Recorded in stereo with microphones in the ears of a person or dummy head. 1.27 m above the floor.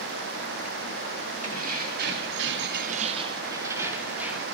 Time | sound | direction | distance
1.4 | keys jangling | 35° right (ahead or behind) | 2 m